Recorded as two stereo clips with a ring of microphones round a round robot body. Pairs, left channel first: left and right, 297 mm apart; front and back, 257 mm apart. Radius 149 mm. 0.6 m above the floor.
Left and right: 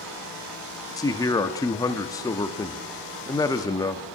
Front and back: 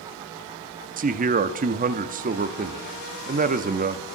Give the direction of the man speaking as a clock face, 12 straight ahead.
7 o'clock.